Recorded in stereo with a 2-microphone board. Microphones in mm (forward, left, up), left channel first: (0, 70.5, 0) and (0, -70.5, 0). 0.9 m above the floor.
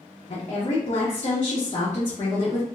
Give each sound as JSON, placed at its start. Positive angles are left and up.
{"t": 0.3, "sound": "a woman speaking", "side_deg": 40, "distance_m": 0.8}